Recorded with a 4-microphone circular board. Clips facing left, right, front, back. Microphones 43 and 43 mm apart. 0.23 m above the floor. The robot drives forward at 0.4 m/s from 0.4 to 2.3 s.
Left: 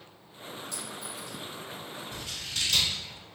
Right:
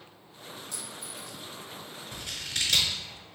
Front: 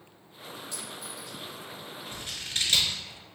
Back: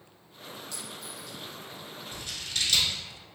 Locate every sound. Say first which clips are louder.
0.7 s a clink: left 3 dB, front 1 dB; 70° right, 1.6 m; by 1.4 s 80° right, 1.6 m
2.1 s scissors: right 3 dB, even; 60° right, 0.9 m; by 3.0 s 65° right, 0.9 m